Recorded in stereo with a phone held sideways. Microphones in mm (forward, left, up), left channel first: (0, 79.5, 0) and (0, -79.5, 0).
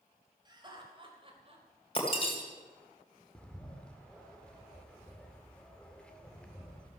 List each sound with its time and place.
0.5 s laughter: 30° right (ahead or behind), 4 m; by 1.6 s 40° right (ahead or behind), 3.5 m
1.9 s breaking glass: 35° left (ahead or behind), 3.5 m
3.4 s a bird: 5° left (ahead or behind), 1.8 m